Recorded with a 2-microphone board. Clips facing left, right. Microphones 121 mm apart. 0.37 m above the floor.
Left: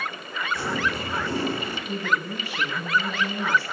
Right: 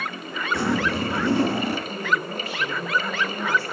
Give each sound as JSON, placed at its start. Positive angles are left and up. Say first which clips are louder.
{"t": 0.5, "sound": "a zipper", "louder": "right 5 dB", "side_deg": -75, "distance_m": 2.5}
{"t": 1.9, "sound": "a woman speaking", "louder": "right 1 dB", "side_deg": 80, "distance_m": 5.5}